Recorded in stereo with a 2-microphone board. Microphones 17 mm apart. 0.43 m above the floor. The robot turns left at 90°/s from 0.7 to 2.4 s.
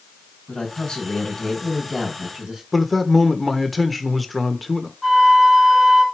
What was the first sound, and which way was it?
A man speaking, 95° left.